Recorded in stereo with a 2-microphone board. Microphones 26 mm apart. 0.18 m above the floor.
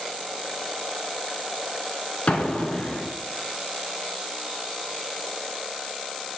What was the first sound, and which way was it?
An explosion, 50° left (ahead or behind).